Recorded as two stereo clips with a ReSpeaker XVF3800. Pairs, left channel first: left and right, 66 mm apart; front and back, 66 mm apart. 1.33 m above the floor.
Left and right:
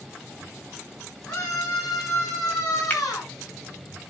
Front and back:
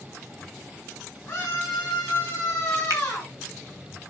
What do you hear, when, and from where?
1.3 s a scream: 60° left, 9.5 m; by 3.3 s 80° left, 9.5 m
2.9 s a finger snap: 155° left, 3.5 m